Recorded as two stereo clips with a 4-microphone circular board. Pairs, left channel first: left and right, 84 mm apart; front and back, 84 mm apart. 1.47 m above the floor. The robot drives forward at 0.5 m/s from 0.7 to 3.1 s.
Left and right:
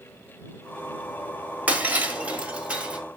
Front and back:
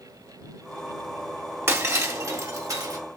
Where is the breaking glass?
145° right, 1.4 m; by 3.0 s 160° right, 1.9 m.